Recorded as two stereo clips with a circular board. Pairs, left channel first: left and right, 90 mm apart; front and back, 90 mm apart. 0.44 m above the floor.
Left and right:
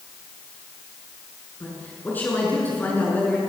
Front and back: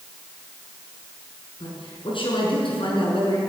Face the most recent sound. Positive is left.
turn(degrees=20)